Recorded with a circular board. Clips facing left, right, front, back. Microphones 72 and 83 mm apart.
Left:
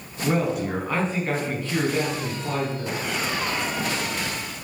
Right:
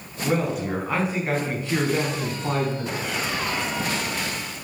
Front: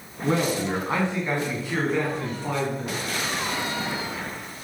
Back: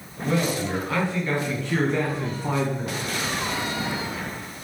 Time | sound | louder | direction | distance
0.2 | a man speaking | left 1 dB, front 1 dB | 10° left | 1.4 m